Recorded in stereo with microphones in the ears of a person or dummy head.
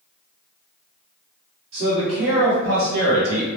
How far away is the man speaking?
About 1.6 m.